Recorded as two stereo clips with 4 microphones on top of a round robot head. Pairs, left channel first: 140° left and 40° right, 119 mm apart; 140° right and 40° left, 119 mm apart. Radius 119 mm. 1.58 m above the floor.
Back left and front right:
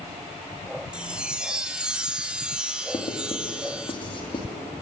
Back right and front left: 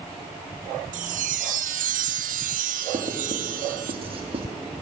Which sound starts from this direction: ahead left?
A chime, at 0.9 s.